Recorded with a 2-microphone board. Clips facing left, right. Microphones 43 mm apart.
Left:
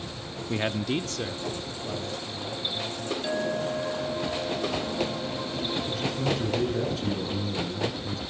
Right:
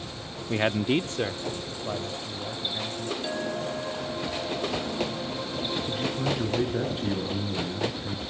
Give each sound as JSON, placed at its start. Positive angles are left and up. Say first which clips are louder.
{"t": 0.5, "sound": "a man speaking", "louder": "right 4 dB", "side_deg": -10, "distance_m": 0.6}
{"t": 3.2, "sound": "a clink", "louder": "left 5 dB", "side_deg": 5, "distance_m": 2.5}
{"t": 5.9, "sound": "a man speaking", "louder": "even", "side_deg": -20, "distance_m": 8.0}